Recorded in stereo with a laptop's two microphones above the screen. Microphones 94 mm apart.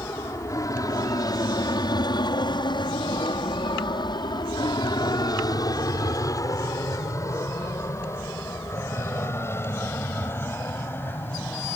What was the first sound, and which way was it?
An aircraft, 35° left (ahead or behind).